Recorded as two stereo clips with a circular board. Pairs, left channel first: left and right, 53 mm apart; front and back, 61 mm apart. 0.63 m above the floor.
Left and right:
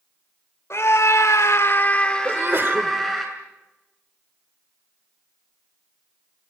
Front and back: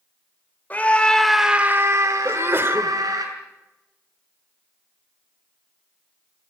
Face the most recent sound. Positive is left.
turn(degrees=-130)